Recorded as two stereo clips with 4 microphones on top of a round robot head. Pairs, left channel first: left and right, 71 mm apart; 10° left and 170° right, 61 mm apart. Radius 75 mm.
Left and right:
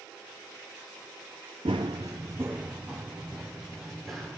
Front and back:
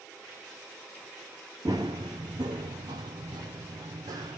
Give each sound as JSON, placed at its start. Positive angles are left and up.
{"t": 1.6, "sound": "running footsteps", "azimuth_deg": -115, "distance_m": 1.0}